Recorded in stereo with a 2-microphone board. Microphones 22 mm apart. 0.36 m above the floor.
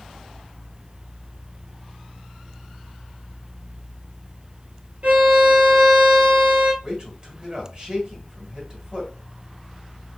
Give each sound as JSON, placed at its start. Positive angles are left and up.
{"t": 5.0, "sound": "a violin", "side_deg": -60, "distance_m": 1.9}
{"t": 6.8, "sound": "a man speaking", "side_deg": -35, "distance_m": 1.8}